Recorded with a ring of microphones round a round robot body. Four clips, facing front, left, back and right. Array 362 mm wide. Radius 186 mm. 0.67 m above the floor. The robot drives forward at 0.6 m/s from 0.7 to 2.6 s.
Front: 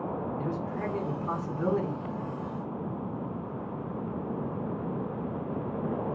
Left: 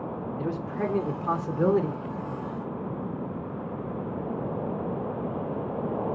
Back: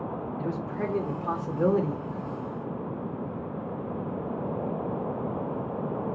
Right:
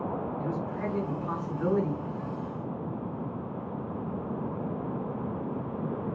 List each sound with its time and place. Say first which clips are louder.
0.4 s a man speaking: left 2 dB, back 1 dB; 115° left, 2.5 m; by 1.9 s 130° left, 2.5 m